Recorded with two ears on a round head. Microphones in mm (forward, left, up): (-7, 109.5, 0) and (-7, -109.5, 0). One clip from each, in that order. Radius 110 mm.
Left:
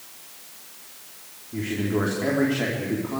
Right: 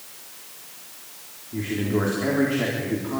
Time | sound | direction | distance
1.5 | a man speaking | 15° left (ahead or behind) | 4 m